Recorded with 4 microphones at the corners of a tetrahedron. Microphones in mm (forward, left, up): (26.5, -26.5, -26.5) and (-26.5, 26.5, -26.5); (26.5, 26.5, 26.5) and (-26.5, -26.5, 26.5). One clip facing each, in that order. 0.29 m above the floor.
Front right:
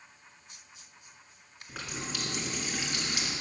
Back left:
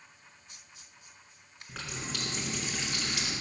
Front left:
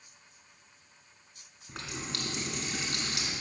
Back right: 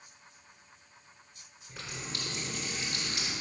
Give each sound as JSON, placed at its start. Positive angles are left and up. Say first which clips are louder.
{"t": 1.7, "sound": "a running tap", "louder": "front right 1 dB, front left 2 dB", "azimuth_deg": 35, "distance_m": 2.0}